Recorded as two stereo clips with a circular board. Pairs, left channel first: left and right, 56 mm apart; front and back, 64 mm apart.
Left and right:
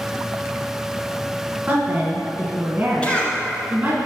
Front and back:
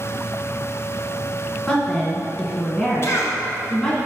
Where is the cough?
25° left, 1.4 m.